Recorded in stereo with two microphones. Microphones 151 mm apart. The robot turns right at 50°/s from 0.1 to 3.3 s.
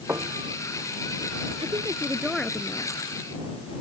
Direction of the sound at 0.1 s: 15° right (ahead or behind).